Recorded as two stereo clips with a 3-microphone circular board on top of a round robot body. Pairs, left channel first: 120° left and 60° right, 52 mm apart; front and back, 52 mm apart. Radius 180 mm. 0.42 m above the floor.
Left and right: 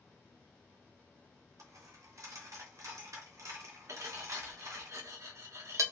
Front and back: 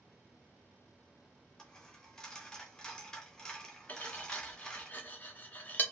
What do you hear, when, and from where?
1.6 s a dropped coin: 80° right, 0.7 m
3.9 s cutlery clinking: 55° right, 0.9 m